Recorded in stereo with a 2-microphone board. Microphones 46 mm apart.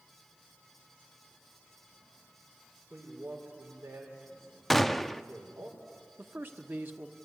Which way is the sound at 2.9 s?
75° right (ahead or behind).